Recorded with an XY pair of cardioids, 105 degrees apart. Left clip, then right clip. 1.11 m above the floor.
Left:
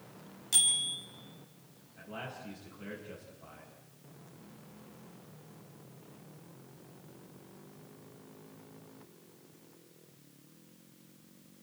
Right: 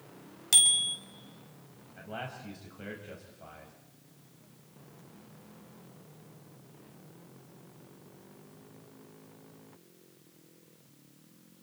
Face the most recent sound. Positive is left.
turn(degrees=-55)